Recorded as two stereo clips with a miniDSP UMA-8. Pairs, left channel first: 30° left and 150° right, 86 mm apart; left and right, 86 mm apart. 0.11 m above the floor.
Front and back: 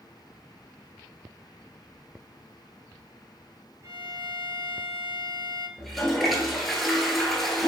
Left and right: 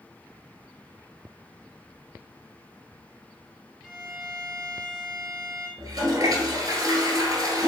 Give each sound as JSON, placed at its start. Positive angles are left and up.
{"t": 3.8, "sound": "a violin", "azimuth_deg": 170, "distance_m": 0.8}
{"t": 5.8, "sound": "a toilet flushing", "azimuth_deg": -60, "distance_m": 1.1}